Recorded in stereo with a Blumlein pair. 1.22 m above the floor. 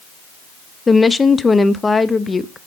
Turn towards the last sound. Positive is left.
turn(degrees=10)